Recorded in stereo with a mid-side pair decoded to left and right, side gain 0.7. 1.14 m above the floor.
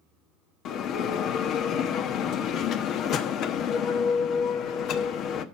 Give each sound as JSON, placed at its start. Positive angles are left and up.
{"t": 0.7, "sound": "a bell", "azimuth_deg": 50, "distance_m": 1.0}